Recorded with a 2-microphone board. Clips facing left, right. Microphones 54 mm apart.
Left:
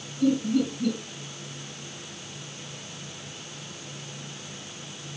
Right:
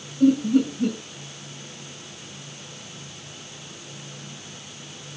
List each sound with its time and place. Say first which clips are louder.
0.2 s laughter: right 5 dB; 55° right (ahead or behind), 5 m